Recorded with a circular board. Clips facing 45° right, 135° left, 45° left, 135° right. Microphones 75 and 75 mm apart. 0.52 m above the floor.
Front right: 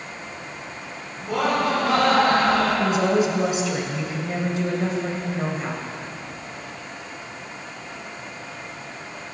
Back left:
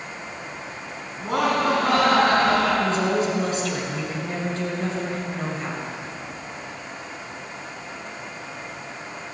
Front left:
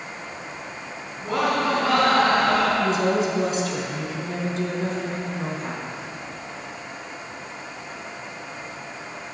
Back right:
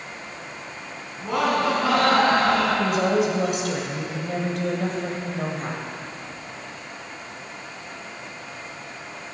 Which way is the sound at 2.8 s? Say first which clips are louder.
Front right 2 dB, even; 120° right.